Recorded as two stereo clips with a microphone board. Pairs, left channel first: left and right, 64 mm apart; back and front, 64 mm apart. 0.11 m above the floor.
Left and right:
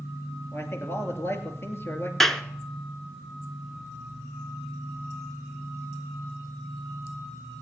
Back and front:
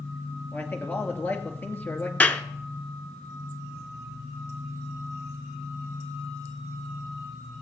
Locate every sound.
0.5 s a man speaking: 130° left, 2.5 m
2.2 s a clap: 170° left, 0.9 m